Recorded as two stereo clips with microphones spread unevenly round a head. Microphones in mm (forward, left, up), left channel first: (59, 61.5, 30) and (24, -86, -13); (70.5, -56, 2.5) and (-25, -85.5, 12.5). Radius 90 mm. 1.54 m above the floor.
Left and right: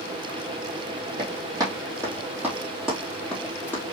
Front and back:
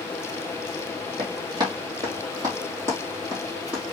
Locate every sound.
1.2 s running footsteps: 175° right, 2 m; by 3.9 s 125° left, 2.0 m